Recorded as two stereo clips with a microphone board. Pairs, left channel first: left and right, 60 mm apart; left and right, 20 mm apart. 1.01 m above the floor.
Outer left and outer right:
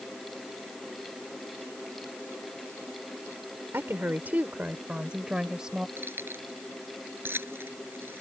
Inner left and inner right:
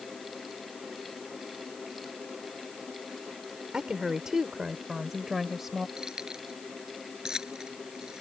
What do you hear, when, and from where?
3.7 s a woman speaking: 40° right (ahead or behind); by 5.9 s 10° right (ahead or behind)
6.0 s keys jangling: 40° right (ahead or behind)